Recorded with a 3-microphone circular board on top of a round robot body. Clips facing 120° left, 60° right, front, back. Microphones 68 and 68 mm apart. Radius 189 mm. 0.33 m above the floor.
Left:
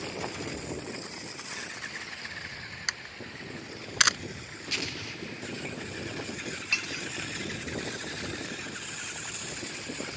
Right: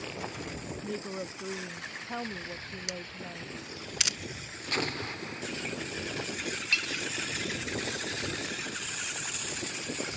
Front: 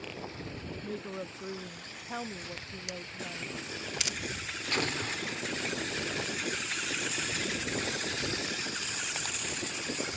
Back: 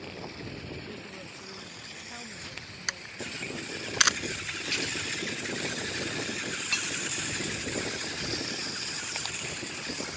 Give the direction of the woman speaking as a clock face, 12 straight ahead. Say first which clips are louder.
Right 4 dB, front 4 dB; 2 o'clock.